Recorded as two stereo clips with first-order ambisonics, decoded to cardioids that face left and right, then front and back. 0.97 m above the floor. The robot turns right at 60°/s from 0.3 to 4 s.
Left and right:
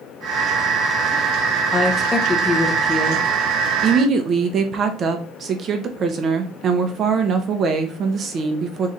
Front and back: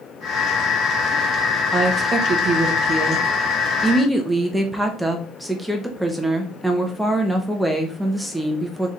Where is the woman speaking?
125° left, 0.7 m; by 8.9 s 100° right, 0.7 m.